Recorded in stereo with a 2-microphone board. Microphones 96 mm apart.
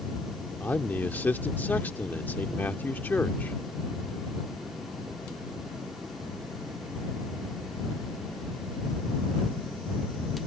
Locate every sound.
0.6 s a man speaking: 20° left (ahead or behind)